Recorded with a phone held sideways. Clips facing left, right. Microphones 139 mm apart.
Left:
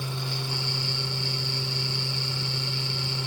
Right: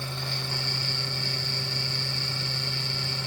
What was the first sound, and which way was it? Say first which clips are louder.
A fan: left 2 dB; 15° left (ahead or behind).